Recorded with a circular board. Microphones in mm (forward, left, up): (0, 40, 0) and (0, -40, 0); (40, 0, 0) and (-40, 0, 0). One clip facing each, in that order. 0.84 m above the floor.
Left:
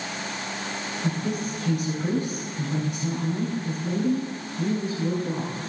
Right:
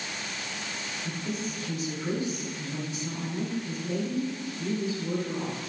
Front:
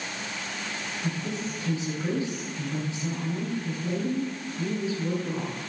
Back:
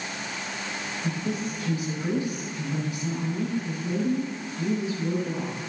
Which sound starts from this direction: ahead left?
A woman speaking, at 1.0 s.